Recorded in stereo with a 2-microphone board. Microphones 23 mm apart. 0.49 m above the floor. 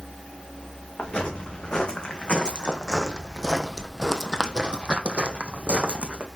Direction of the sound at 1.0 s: 45° left (ahead or behind).